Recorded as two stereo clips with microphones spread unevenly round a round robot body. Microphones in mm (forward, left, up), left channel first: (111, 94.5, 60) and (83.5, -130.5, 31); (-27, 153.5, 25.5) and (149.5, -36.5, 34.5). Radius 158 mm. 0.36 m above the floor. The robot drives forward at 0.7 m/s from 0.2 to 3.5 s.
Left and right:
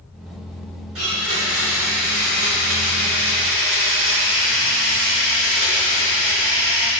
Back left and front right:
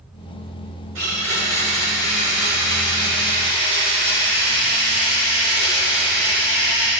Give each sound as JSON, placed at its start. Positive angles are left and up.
{"t": 0.9, "sound": "a blender", "azimuth_deg": -85, "distance_m": 6.5}